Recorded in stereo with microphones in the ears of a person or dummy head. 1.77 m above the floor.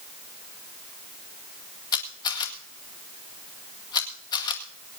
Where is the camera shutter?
25° left (ahead or behind), 1.9 m.